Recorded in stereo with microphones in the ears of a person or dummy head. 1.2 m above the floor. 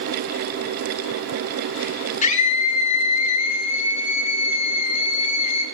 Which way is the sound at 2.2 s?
35° left (ahead or behind).